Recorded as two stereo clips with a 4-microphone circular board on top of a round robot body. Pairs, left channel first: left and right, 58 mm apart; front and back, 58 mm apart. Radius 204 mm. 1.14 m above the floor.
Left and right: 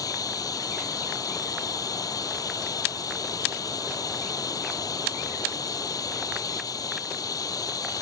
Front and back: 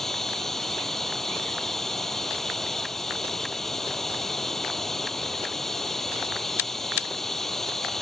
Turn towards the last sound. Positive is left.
turn(degrees=85)